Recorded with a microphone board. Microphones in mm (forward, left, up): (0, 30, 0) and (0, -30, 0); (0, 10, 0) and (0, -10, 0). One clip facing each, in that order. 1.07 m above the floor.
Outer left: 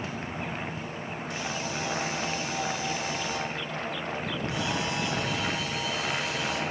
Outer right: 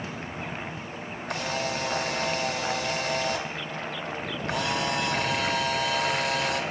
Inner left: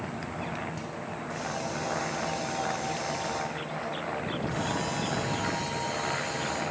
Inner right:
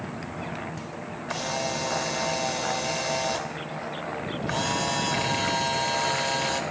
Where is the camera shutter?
70° right (ahead or behind), 2 m.